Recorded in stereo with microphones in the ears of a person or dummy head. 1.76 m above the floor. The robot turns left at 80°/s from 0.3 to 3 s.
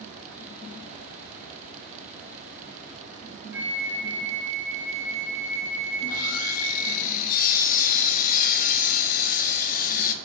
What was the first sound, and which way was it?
A flute, 10° right (ahead or behind).